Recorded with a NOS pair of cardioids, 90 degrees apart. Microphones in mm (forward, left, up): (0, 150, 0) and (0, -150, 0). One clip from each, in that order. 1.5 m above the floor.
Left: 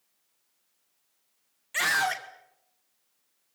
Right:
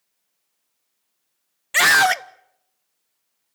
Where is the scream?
65° right, 1.0 m.